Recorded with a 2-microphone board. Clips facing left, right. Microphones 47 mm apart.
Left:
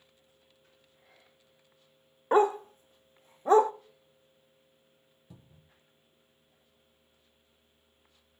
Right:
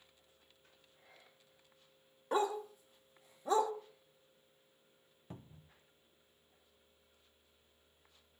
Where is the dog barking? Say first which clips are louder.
Left 10 dB; 40° left (ahead or behind), 0.6 m.